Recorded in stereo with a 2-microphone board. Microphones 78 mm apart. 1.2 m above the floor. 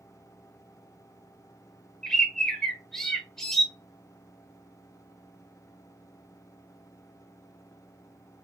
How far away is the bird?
About 0.6 m.